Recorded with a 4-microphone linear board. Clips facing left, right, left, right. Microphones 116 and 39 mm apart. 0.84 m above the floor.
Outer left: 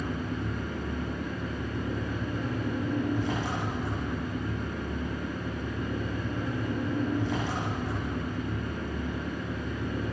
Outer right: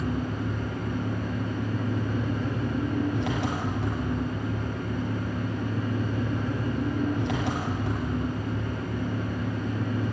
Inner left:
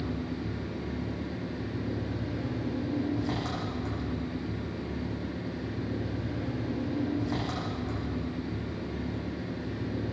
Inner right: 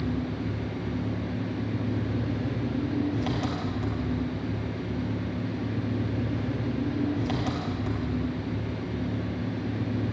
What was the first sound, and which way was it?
An engine running, 75° right (ahead or behind).